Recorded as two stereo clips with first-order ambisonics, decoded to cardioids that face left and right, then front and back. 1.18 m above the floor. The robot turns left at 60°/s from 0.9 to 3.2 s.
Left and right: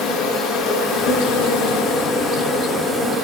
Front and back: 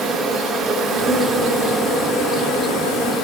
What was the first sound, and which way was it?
An insect, 115° left.